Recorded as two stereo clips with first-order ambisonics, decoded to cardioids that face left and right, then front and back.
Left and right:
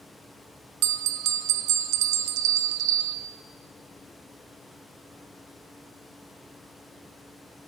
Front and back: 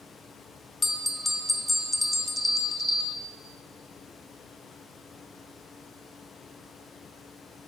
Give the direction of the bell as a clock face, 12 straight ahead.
3 o'clock.